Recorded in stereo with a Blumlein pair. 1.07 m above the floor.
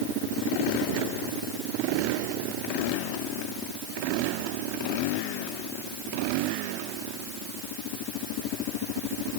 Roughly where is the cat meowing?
No cat meowing in this recording.